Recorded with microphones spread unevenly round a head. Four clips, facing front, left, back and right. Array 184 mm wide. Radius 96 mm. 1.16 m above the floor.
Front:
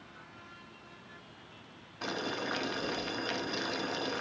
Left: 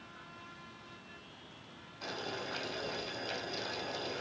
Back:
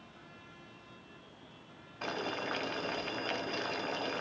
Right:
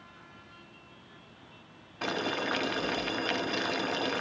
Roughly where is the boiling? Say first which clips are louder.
Right 9 dB, front 1 dB; right.